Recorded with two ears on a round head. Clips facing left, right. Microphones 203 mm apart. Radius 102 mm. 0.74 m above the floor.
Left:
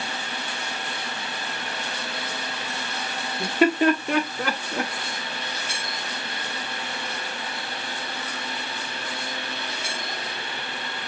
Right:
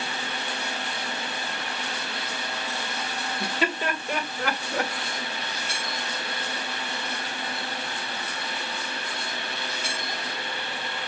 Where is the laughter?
35° left (ahead or behind), 1.4 m; by 4.9 s 75° left (ahead or behind), 1.7 m.